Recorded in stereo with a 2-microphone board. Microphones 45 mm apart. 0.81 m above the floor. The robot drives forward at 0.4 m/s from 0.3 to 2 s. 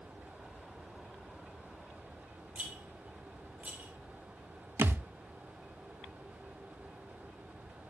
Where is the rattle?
40° right (ahead or behind), 3 m.